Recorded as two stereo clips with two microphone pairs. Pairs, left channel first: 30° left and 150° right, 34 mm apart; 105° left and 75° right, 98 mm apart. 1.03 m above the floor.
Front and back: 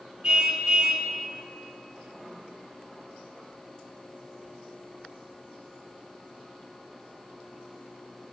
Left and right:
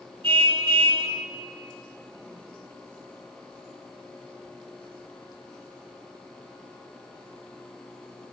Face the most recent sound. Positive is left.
turn(degrees=-85)